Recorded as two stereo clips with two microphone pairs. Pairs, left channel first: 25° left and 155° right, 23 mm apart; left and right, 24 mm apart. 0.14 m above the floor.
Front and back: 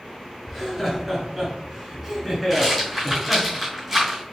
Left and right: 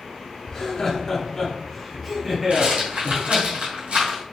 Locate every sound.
0.5 s laughter: 130° left, 1.8 m; by 3.5 s 85° right, 1.7 m
2.5 s a rattle: 70° right, 2.5 m